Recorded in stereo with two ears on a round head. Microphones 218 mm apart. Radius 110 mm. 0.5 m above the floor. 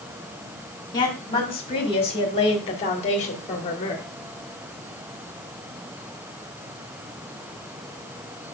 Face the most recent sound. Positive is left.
turn(degrees=30)  # may be behind; listen again after turning